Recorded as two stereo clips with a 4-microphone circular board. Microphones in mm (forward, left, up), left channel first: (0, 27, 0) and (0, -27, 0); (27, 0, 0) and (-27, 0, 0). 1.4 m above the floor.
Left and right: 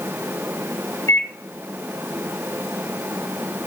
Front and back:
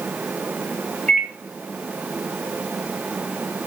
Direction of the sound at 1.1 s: 70° left.